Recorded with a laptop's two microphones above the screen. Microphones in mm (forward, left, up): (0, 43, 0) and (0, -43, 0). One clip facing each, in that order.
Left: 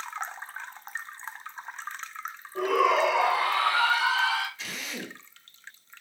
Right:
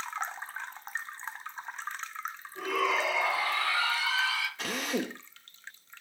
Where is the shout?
75° left (ahead or behind), 4 m; by 4.5 s 70° left (ahead or behind), 3 m.